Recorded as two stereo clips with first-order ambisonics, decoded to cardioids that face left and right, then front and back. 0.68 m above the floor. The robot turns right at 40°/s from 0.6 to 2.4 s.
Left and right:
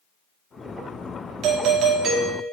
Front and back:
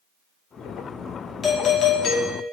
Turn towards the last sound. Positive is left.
turn(degrees=-25)